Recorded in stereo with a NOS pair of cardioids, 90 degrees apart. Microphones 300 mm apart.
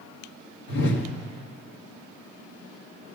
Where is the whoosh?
65° left, 2.0 m.